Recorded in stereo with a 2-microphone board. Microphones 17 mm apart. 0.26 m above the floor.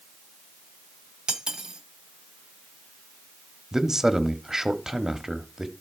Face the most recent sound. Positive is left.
turn(degrees=-25)  # may be behind; listen again after turning